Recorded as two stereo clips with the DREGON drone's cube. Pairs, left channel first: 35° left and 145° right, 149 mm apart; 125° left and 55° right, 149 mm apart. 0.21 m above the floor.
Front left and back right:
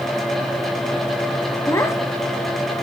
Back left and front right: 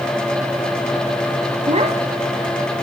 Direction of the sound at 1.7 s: 30° right.